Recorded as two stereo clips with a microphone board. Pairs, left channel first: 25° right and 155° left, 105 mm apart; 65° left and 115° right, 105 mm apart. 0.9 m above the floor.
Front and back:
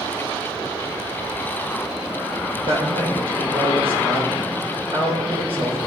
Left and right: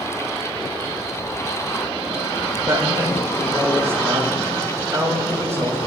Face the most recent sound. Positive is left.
turn(degrees=180)